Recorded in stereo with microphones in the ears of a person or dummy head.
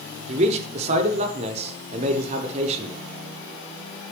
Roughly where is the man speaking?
Right.